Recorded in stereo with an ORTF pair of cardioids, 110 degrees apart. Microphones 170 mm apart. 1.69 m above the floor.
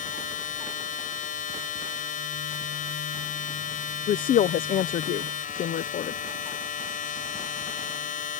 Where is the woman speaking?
60° left.